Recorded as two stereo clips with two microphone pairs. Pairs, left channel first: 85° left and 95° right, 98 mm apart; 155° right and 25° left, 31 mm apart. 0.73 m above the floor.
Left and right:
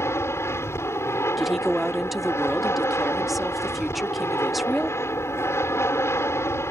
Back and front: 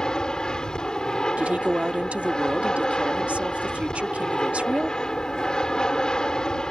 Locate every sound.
0.0 s an aircraft: 145° left
1.4 s a woman speaking: 5° right